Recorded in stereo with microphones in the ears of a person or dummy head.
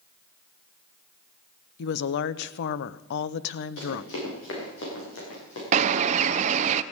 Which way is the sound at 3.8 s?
80° left.